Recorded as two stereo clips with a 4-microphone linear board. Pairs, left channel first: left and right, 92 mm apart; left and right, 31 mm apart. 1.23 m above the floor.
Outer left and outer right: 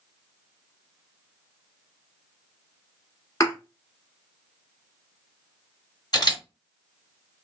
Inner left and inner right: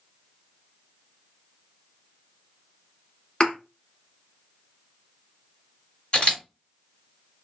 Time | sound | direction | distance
3.4 | a thud | 35° left (ahead or behind) | 1.4 m
6.1 | a camera shutter | 45° left (ahead or behind) | 1.5 m